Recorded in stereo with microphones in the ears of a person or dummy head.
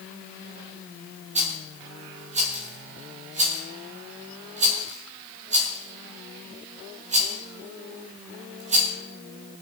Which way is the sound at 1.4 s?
35° right (ahead or behind).